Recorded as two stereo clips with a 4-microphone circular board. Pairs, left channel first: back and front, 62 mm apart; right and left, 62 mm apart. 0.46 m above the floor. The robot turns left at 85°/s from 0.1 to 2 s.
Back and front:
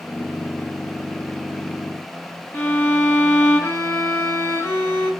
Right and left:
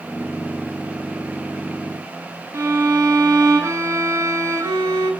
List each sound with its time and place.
2.5 s a violin: 130° left, 5 m